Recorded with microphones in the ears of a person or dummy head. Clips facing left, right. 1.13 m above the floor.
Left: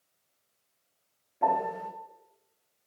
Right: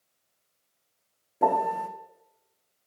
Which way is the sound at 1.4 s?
45° right (ahead or behind).